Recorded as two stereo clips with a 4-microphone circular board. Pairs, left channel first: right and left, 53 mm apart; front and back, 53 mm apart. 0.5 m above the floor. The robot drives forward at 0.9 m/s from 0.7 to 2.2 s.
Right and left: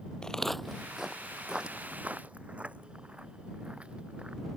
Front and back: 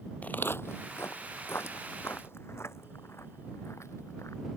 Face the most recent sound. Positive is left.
turn(degrees=20)